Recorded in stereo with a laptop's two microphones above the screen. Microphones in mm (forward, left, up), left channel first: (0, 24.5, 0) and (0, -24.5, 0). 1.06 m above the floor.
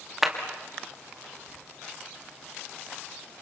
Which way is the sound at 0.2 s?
5° right (ahead or behind).